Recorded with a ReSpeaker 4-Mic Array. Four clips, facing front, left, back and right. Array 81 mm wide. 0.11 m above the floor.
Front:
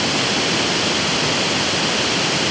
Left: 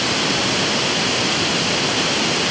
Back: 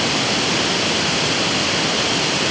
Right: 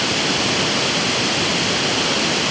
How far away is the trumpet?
I don't hear a trumpet.